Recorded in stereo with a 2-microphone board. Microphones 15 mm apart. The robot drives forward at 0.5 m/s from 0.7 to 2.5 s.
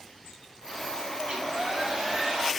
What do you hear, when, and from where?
1.2 s a hair dryer: 45° right (ahead or behind), 2.5 m; by 2.5 s 40° right (ahead or behind), 3 m